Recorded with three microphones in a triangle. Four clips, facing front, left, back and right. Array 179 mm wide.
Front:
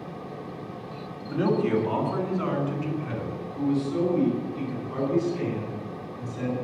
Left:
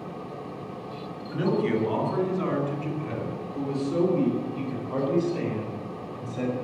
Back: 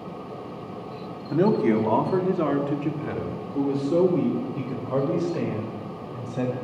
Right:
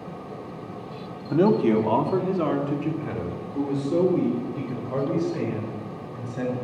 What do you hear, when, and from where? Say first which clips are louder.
1.3 s a man speaking: right 6 dB, back 3 dB; 125° right, 2.0 m; by 6.5 s 170° right, 5.5 m